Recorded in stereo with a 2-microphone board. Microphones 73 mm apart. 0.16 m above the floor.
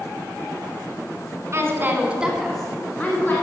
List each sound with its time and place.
1.5 s a woman speaking: 40° right (ahead or behind), 1.8 m; by 3.4 s 30° left (ahead or behind), 2.0 m